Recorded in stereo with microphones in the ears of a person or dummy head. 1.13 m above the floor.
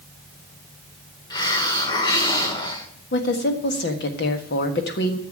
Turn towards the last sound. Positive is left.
turn(degrees=55)  # may be behind; listen again after turning